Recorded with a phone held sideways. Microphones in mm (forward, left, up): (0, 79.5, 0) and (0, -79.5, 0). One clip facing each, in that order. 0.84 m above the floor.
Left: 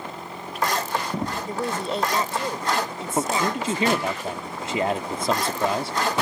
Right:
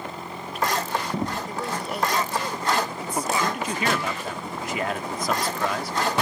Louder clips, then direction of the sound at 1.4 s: Left 3 dB; 25° left (ahead or behind).